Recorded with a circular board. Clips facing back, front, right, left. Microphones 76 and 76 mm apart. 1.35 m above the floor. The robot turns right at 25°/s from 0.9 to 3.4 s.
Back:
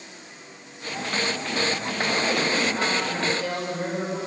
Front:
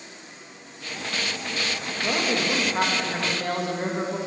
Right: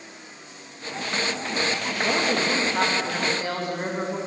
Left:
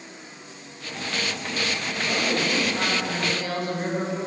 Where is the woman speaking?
65° right, 2.5 m; by 4.2 s 30° right, 2.5 m.